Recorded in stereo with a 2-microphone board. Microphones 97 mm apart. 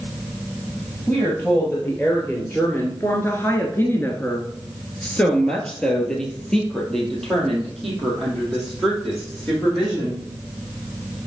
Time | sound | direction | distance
1.1 | a woman speaking | 20° left (ahead or behind) | 2.5 m